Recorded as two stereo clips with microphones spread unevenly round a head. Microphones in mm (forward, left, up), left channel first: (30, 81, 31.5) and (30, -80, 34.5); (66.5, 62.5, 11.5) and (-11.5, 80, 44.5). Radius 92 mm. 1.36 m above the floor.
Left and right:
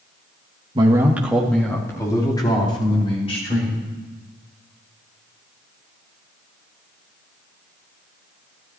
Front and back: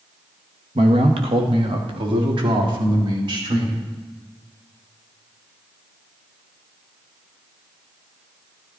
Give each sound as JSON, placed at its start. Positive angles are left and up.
{"t": 0.8, "sound": "a man speaking", "azimuth_deg": -155, "distance_m": 1.3}